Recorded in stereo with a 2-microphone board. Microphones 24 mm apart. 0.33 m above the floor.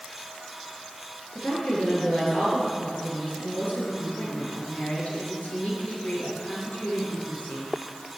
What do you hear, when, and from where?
1.4 s a woman speaking: 80° left, 6.5 m